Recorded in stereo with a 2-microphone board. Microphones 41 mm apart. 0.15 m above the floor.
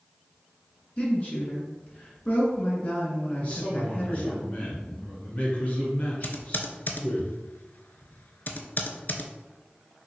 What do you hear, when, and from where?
1.0 s a woman speaking: 35° left (ahead or behind), 1.5 m
3.4 s a man speaking: 30° left (ahead or behind), 1.5 m
6.2 s typing on a keyboard: 50° left (ahead or behind), 0.5 m